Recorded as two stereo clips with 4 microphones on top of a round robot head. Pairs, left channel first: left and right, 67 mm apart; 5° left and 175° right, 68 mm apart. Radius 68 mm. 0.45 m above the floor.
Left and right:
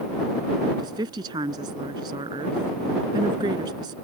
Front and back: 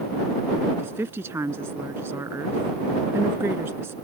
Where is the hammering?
I don't hear hammering.